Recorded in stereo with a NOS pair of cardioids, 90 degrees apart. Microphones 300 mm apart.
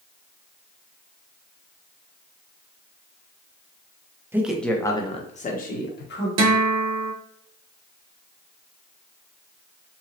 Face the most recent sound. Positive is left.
turn(degrees=-60)